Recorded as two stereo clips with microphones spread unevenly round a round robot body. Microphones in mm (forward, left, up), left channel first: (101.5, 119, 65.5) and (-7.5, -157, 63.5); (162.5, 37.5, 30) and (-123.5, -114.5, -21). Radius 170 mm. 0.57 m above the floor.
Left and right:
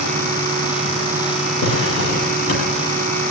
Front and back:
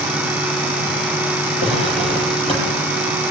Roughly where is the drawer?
Behind left.